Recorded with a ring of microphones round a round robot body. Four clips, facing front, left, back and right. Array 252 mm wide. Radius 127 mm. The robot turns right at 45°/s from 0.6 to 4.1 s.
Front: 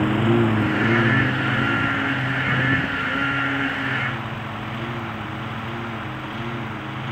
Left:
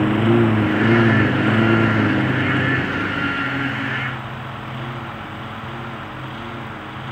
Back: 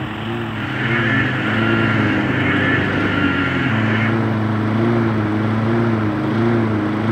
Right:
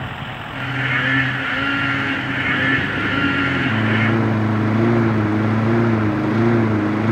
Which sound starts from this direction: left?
A lawn mower, at 0.0 s.